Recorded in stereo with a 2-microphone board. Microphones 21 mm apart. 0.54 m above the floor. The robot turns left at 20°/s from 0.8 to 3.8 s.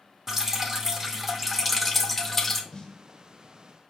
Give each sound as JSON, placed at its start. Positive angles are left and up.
{"t": 0.3, "sound": "dripping", "azimuth_deg": -155, "distance_m": 0.7}
{"t": 2.7, "sound": "a snare drum", "side_deg": 35, "distance_m": 0.9}